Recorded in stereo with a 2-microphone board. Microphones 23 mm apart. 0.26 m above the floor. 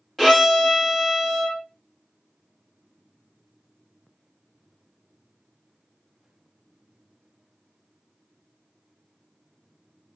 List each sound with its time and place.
0.2 s a violin: 5° left (ahead or behind), 1.2 m